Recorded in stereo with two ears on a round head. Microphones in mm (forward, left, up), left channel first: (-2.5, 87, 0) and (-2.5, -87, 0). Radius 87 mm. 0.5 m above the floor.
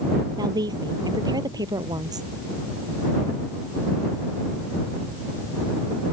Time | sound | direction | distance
0.4 | a woman speaking | 20° right (ahead or behind) | ?